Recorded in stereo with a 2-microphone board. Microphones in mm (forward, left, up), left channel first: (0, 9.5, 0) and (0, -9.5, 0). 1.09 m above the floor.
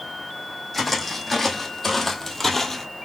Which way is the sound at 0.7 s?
10° left (ahead or behind).